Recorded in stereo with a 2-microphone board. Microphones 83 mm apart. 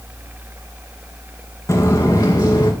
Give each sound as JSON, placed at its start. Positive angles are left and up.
{"t": 1.7, "sound": "footsteps", "side_deg": 35, "distance_m": 1.3}